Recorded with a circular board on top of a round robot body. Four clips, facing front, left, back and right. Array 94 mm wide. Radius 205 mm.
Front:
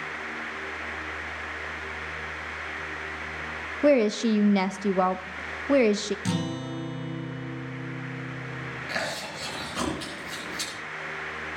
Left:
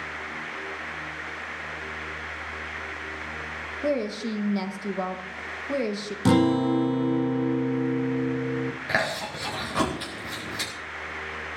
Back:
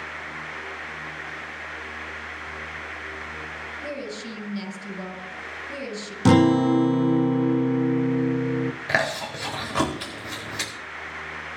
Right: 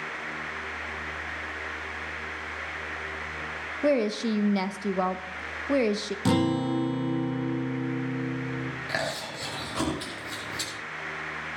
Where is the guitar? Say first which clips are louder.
Left 5 dB, back 14 dB; 170° left, 0.7 m.